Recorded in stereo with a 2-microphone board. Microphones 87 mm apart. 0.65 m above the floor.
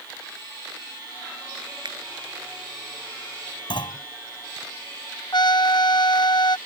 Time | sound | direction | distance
1.9 | a finger snap | 70° right (ahead or behind) | ?
3.7 | a clunk | 70° left (ahead or behind) | ?
5.3 | a trumpet | 55° left (ahead or behind) | ?